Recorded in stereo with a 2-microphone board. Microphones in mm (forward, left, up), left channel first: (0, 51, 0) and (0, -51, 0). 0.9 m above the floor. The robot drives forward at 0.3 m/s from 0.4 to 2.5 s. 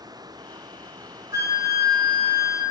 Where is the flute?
30° right (ahead or behind), 0.7 m; by 2.6 s 25° right (ahead or behind), 0.8 m.